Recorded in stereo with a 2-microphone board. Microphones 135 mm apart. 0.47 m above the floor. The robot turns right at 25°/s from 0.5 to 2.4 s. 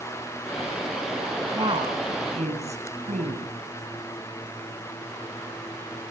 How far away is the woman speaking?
About 6.5 m.